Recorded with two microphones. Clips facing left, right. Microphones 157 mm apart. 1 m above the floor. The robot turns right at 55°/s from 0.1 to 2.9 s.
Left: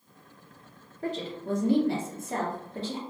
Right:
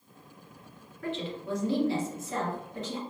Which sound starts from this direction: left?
A woman speaking, at 1.0 s.